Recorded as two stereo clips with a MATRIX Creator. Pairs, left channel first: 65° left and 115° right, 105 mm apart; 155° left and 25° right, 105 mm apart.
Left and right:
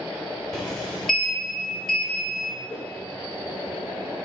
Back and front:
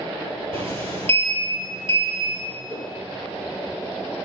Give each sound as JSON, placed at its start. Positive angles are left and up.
{"t": 0.5, "sound": "a sliding door", "azimuth_deg": -15, "distance_m": 3.5}
{"t": 2.7, "sound": "a whoosh", "azimuth_deg": -5, "distance_m": 3.0}